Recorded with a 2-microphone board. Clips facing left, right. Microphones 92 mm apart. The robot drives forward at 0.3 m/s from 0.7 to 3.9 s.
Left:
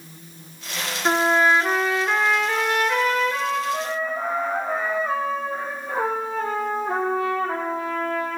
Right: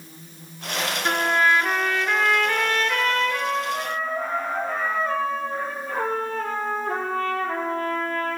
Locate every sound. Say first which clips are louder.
1.1 s a trumpet: left 3 dB; 25° left (ahead or behind), 0.5 m; by 8.4 s 10° left (ahead or behind), 1.4 m